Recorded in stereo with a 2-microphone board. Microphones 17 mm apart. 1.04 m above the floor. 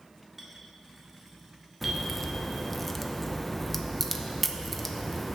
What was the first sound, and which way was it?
A clink, 15° right (ahead or behind).